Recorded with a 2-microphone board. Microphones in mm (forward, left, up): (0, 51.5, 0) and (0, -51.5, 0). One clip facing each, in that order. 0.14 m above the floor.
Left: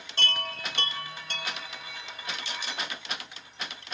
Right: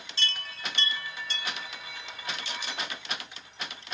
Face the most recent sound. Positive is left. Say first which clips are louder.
# left 5 dB
turn(degrees=55)  # may be behind; listen again after turning